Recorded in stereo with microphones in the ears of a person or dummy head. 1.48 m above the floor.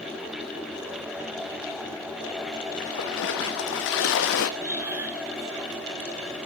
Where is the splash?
65° left (ahead or behind), 1.5 m.